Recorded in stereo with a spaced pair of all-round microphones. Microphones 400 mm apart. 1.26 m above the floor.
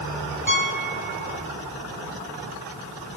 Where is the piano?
45° left (ahead or behind), 5 m.